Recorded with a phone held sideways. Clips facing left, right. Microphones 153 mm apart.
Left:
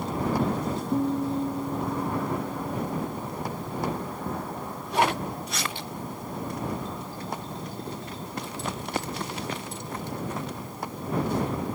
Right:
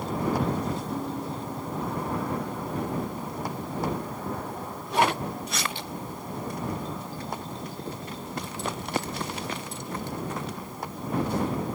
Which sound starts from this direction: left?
A guitar, at 0.9 s.